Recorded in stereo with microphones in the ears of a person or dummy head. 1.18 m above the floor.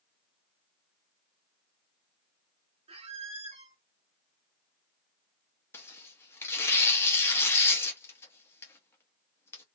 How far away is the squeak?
About 0.6 m.